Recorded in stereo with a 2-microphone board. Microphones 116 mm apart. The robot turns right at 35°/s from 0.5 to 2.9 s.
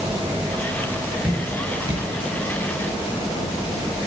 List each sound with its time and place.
1.2 s dripping: 10° right (ahead or behind), 7 m; by 2.0 s 40° right (ahead or behind), 7 m